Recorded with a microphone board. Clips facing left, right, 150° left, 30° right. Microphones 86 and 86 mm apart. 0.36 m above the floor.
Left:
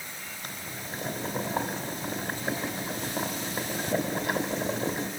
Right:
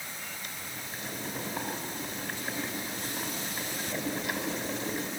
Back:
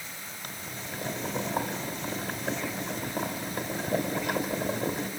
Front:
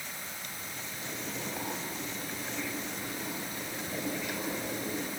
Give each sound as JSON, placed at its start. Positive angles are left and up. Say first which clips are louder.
{"t": 0.4, "sound": "boiling", "louder": "left 3 dB, back 3 dB", "azimuth_deg": 125, "distance_m": 2.5}